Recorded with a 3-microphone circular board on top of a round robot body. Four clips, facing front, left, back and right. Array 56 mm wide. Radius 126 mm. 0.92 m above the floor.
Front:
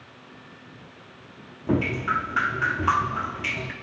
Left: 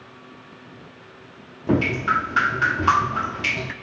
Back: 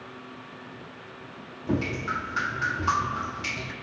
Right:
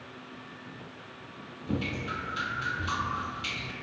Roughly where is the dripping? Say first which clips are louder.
Left 13 dB, front 4 dB; left.